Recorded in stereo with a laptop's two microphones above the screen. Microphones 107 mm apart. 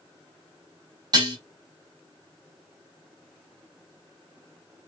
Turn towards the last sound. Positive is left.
turn(degrees=-45)  # may be behind; listen again after turning